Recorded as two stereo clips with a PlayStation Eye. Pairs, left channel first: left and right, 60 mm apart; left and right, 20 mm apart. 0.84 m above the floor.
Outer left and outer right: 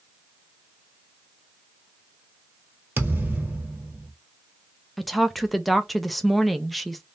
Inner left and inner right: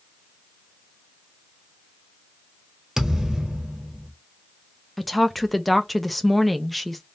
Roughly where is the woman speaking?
Centre.